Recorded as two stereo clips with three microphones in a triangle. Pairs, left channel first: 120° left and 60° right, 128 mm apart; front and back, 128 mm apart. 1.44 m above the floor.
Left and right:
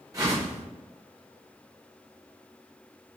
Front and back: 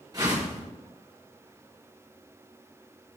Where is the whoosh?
120° right, 3 m.